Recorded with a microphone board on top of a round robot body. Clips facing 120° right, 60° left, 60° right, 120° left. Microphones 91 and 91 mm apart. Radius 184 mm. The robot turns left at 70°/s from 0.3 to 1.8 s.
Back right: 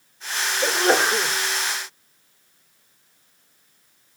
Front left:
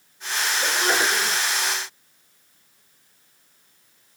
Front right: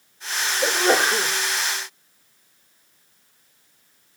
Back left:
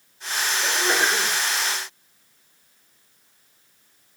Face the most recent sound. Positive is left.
turn(degrees=-140)